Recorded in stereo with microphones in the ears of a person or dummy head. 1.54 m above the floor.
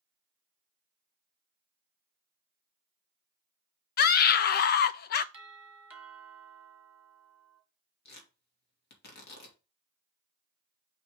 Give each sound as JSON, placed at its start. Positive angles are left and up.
{"t": 4.0, "sound": "a scream", "side_deg": 50, "distance_m": 0.6}
{"t": 5.3, "sound": "a doorbell", "side_deg": -5, "distance_m": 2.0}
{"t": 8.1, "sound": "tearing paper", "side_deg": 55, "distance_m": 2.5}